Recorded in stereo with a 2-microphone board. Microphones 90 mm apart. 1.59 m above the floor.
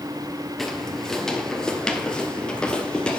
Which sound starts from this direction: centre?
Footsteps, at 0.6 s.